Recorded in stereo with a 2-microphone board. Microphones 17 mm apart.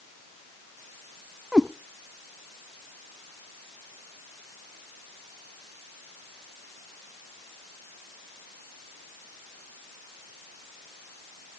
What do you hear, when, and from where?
1.5 s a cat meowing: 45° right (ahead or behind), 0.6 m